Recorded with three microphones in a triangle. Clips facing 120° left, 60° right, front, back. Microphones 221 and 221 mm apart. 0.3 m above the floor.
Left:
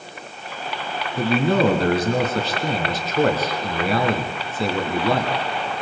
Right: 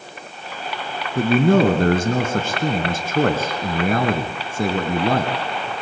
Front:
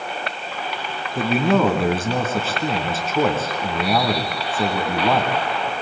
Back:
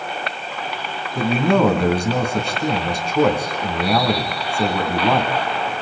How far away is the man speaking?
About 3 m.